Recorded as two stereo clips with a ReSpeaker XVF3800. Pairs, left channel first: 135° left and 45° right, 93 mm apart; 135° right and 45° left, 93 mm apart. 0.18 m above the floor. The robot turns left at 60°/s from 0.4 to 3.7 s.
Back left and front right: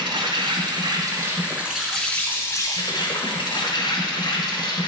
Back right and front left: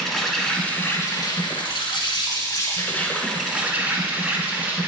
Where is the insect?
50° right, 1.3 m; by 4.9 s 110° left, 1.3 m.